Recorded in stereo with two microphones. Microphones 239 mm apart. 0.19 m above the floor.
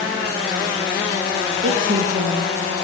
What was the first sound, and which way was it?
A woman speaking, 55° right (ahead or behind).